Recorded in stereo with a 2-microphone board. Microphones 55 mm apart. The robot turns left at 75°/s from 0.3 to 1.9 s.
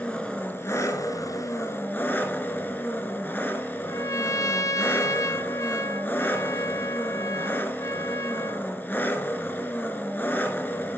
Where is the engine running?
160° left, 2 m; by 11.0 s 40° left, 2 m.